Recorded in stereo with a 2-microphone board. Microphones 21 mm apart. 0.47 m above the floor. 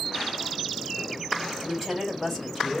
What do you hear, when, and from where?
1.6 s a woman speaking: 5° left (ahead or behind), 2.0 m